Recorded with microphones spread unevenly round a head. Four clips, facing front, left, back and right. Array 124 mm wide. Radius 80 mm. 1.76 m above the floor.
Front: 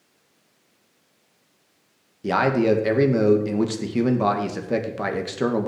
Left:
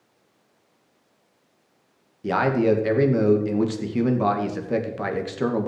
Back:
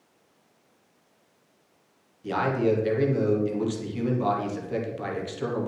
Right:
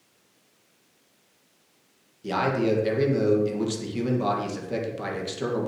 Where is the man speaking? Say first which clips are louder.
Left 4 dB, front 5 dB; 10° left, 2 m.